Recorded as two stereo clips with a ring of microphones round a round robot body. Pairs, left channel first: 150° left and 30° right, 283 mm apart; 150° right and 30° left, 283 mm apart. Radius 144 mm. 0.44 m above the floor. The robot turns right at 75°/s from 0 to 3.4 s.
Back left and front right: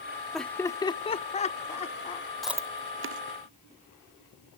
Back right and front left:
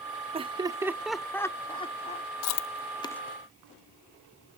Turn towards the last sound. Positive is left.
turn(degrees=-50)